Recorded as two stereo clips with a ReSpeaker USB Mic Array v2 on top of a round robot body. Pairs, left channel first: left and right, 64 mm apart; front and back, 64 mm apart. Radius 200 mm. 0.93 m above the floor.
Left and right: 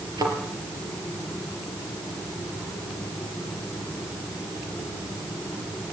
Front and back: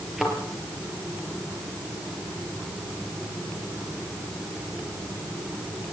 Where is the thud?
95° right, 4 m.